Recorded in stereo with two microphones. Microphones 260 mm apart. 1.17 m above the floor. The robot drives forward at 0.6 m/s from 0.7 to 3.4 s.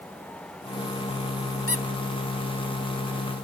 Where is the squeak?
60° left (ahead or behind), 1.0 m.